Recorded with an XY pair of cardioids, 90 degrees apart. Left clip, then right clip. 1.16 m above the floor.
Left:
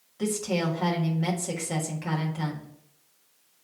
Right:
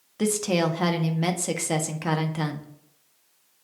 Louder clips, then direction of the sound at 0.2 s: Right 4 dB; 65° right.